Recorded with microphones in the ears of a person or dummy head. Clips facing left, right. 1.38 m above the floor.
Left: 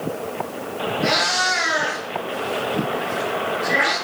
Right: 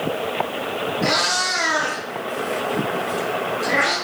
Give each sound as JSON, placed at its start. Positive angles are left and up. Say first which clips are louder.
{"t": 1.0, "sound": "a cat meowing", "louder": "left 1 dB", "side_deg": -65, "distance_m": 5.0}